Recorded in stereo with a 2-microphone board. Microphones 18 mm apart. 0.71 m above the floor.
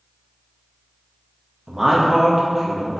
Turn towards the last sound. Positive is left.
turn(degrees=5)  # may be behind; listen again after turning